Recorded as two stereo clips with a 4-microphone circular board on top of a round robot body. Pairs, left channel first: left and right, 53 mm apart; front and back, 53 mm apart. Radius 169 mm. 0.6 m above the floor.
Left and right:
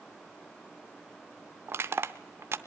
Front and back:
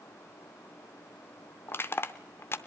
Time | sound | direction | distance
1.7 | crushing | 45° right | 0.6 m